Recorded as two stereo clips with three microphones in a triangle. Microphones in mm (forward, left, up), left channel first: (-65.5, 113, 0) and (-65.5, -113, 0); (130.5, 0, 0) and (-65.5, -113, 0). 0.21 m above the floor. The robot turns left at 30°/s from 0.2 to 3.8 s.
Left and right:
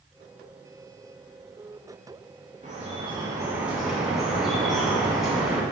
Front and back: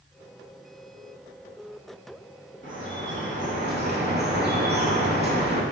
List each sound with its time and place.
2.6 s dripping: 145° right, 0.6 m; by 5.6 s straight behind, 0.6 m